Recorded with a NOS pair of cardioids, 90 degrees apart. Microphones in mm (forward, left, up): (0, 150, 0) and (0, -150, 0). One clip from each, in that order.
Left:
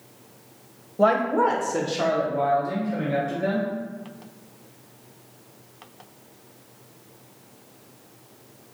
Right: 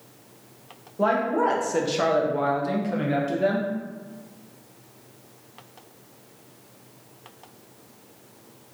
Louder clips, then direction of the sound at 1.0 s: Left 2 dB; 20° left.